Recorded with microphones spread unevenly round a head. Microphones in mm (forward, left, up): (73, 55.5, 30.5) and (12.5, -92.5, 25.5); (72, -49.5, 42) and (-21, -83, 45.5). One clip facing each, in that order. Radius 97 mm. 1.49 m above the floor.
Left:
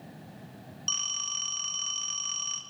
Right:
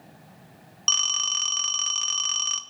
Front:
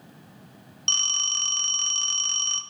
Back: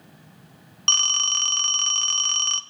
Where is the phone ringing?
125° right, 1.4 m.